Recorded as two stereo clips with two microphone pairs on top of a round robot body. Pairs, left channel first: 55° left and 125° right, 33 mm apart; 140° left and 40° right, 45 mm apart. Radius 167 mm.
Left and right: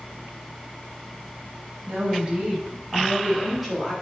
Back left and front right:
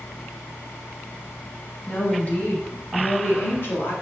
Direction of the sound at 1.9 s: 170° right.